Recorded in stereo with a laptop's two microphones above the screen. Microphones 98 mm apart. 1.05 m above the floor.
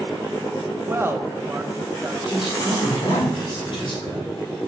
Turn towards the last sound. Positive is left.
turn(degrees=55)  # may be behind; listen again after turning